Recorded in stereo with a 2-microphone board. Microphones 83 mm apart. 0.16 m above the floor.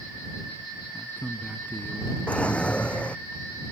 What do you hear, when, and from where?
0.9 s a man speaking: 20° left (ahead or behind)
2.3 s a drawer: 15° left (ahead or behind)